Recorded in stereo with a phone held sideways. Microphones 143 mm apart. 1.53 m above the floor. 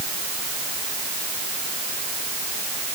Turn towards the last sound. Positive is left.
No sound to turn to.